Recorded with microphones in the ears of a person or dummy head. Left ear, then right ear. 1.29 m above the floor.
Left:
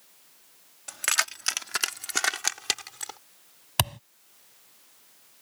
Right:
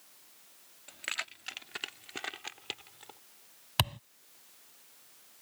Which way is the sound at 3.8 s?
10° left (ahead or behind).